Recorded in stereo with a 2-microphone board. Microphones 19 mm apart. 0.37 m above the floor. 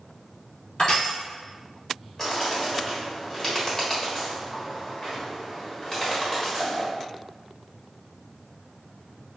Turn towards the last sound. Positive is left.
turn(degrees=25)  # may be behind; listen again after turning